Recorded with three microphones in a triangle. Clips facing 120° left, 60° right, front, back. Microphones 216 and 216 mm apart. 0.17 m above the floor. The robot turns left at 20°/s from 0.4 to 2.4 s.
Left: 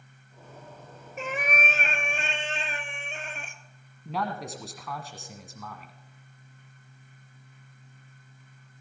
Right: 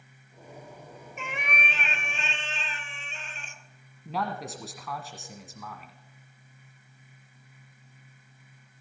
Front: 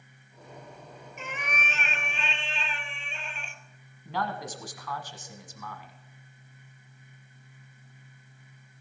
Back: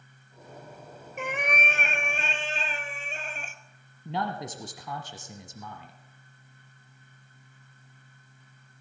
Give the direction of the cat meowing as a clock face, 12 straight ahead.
6 o'clock.